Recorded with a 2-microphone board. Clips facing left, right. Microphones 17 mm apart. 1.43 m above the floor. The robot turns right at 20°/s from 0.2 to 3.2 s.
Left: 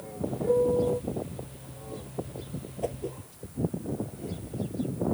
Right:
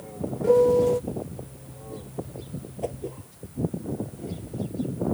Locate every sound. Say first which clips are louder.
0.4 s a piano: right 6 dB; 65° right (ahead or behind); by 1.0 s 70° right (ahead or behind)
2.8 s a whoosh: right 1 dB; 5° right (ahead or behind); by 3.2 s centre (ahead or behind)